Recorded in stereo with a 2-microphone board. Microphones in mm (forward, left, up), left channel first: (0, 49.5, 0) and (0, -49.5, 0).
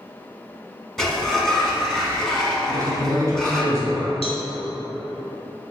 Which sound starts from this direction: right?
A man speaking, at 2.6 s.